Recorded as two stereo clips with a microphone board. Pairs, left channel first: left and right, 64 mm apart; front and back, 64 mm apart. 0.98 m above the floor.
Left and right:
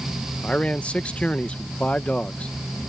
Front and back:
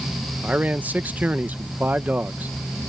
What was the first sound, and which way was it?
A man speaking, 145° left.